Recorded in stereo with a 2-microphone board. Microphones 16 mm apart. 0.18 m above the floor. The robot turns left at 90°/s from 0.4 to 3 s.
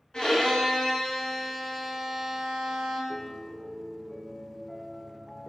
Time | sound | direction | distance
0.1 | a violin | 120° left | 1.4 m
3.1 | a piano | 20° right (ahead or behind) | 0.6 m